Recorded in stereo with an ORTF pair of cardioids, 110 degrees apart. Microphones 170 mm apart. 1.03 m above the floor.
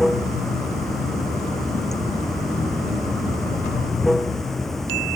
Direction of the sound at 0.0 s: Straight ahead.